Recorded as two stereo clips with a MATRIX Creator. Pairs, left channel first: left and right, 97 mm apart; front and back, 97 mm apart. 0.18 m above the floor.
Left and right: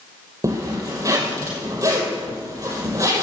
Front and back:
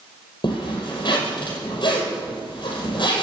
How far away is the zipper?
About 5.5 m.